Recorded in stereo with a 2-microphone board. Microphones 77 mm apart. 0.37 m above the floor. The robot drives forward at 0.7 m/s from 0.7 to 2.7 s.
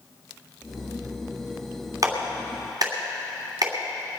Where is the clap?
50° right (ahead or behind), 3 m; by 3.7 s 55° right (ahead or behind), 2.5 m.